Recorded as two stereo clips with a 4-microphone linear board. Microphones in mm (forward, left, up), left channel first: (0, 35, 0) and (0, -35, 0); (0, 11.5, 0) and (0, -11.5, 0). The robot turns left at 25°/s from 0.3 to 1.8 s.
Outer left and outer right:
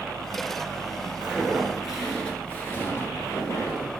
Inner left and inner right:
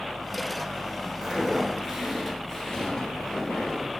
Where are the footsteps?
15° right (ahead or behind), 1.2 m; by 3.9 s 50° left (ahead or behind), 1.7 m.